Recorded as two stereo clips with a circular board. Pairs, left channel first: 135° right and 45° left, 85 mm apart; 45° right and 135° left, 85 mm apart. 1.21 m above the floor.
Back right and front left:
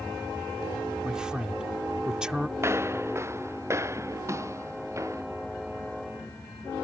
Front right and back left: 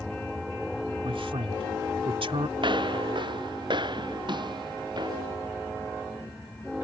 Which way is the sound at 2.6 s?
105° left.